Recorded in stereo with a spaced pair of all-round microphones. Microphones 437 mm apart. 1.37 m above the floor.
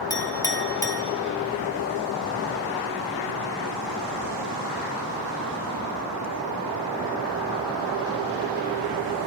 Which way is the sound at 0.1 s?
10° left (ahead or behind).